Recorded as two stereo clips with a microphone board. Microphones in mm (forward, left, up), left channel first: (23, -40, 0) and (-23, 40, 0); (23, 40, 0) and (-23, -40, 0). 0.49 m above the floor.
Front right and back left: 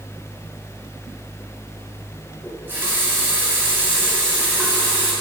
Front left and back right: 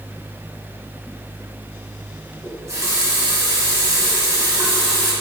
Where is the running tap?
175° right, 2.5 m.